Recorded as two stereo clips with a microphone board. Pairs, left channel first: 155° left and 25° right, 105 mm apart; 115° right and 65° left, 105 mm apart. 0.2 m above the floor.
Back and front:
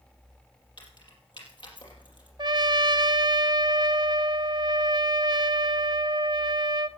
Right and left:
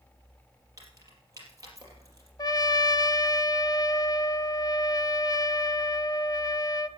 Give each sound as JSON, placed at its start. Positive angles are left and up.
{"t": 0.8, "sound": "keys jangling", "azimuth_deg": 120, "distance_m": 4.5}
{"t": 2.4, "sound": "a trumpet", "azimuth_deg": -65, "distance_m": 0.5}